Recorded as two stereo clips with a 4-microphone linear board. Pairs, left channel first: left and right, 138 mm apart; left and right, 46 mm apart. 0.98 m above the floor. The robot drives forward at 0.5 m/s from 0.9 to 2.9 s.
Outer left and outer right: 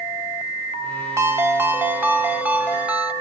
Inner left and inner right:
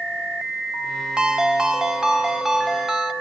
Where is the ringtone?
20° right (ahead or behind), 1.0 m; by 3.1 s 10° right (ahead or behind), 1.8 m.